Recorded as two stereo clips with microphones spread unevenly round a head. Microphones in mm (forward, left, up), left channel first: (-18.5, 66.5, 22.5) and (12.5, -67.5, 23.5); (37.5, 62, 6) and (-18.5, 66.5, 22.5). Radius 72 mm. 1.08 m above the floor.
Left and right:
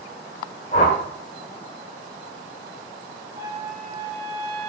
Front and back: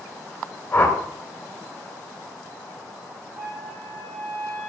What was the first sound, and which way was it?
A whoosh, 60° left.